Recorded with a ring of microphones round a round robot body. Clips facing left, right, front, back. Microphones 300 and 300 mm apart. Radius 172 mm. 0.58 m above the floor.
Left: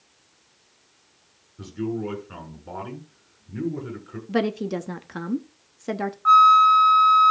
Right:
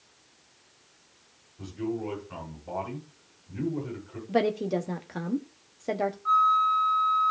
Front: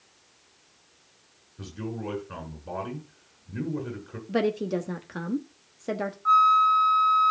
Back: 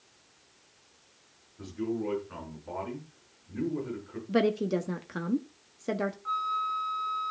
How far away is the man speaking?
About 7 m.